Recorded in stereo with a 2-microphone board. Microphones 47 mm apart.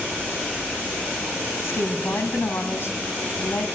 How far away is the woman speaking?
About 2.5 m.